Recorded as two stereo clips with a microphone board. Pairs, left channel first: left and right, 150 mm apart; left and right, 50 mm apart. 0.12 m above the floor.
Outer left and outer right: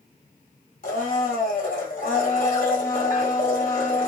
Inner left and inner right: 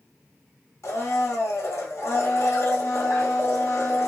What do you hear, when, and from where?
0.8 s a blender: 70° left (ahead or behind), 1.2 m